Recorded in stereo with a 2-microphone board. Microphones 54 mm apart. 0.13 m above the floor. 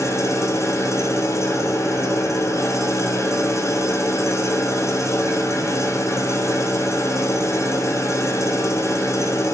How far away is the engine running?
About 1.1 m.